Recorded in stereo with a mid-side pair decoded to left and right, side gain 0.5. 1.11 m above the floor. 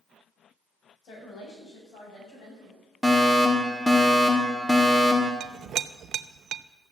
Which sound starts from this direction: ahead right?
A clink, at 5.4 s.